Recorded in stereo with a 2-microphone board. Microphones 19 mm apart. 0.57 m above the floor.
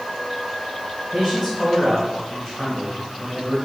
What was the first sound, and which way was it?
A man speaking, 15° right (ahead or behind).